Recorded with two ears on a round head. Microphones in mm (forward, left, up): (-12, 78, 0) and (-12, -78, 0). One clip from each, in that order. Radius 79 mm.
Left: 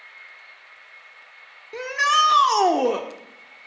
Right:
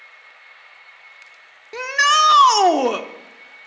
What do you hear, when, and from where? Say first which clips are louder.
1.7 s a shout: right 4 dB; 25° right (ahead or behind), 0.8 m